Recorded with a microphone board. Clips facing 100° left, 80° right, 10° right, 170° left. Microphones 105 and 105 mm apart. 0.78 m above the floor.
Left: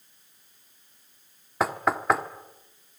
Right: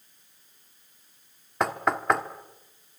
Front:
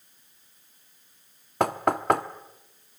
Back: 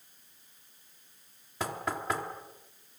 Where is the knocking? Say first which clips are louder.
Even, front 10 dB; 15° left, 1.3 m.